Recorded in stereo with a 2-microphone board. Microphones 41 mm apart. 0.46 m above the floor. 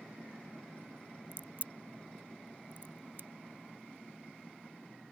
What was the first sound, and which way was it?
A crack, 50° right (ahead or behind).